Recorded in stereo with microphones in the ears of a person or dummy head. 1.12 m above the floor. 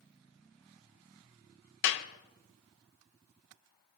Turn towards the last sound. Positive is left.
turn(degrees=65)  # may be behind; listen again after turning